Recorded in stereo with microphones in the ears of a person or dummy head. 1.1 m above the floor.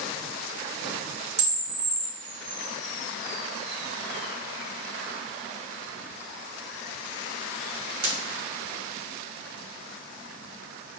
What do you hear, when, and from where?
1.4 s a camera shutter: 35° right (ahead or behind), 1.1 m